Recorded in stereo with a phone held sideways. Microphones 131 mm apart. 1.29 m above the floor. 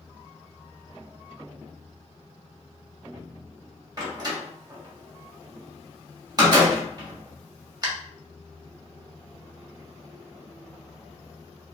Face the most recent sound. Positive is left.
turn(degrees=-35)  # may be behind; listen again after turning